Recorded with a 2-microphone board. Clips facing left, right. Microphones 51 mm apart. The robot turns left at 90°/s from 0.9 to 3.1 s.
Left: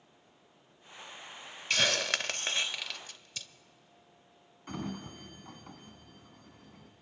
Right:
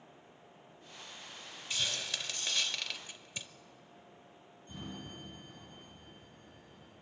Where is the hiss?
65° left (ahead or behind), 0.6 m; by 3.5 s 20° right (ahead or behind), 0.6 m.